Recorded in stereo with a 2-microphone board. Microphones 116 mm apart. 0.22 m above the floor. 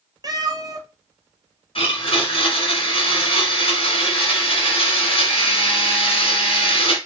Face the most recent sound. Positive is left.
turn(degrees=55)  # may be behind; listen again after turning